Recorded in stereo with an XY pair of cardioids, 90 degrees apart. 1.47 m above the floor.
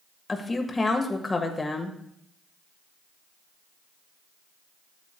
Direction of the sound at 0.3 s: 25° left.